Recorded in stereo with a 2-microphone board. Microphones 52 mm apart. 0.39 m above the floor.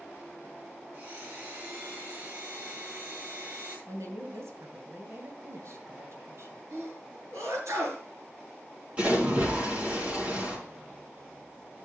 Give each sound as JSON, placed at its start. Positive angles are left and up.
{"t": 0.9, "sound": "a blender", "side_deg": -40, "distance_m": 7.5}
{"t": 3.9, "sound": "a woman speaking", "side_deg": -70, "distance_m": 2.5}
{"t": 6.7, "sound": "a sneeze", "side_deg": -75, "distance_m": 5.0}
{"t": 9.0, "sound": "a splash", "side_deg": -25, "distance_m": 4.0}